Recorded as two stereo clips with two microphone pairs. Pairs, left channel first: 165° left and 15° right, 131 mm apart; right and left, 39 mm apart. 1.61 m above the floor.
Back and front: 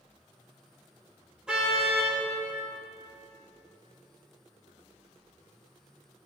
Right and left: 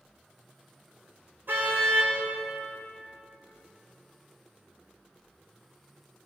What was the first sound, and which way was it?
A car horn, 70° left.